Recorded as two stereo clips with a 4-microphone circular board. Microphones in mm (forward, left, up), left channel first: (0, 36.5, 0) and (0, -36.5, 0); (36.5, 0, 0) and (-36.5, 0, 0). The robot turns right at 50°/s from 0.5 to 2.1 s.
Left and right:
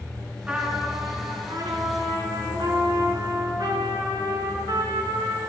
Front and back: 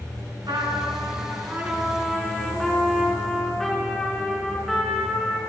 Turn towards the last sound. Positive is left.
turn(degrees=-85)